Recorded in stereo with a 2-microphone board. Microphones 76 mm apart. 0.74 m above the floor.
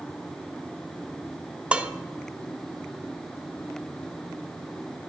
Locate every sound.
1.7 s dishes clattering: 15° right (ahead or behind), 0.7 m